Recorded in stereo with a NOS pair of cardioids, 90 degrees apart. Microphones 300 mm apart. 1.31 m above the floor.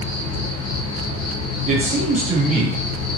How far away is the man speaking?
About 1.3 m.